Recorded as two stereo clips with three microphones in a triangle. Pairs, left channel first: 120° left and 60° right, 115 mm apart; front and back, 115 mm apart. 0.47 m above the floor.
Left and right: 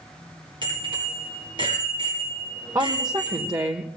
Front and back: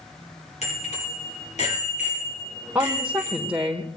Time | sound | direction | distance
0.6 | a bicycle bell | 15° right | 8.5 m
2.8 | a woman speaking | 105° right | 1.2 m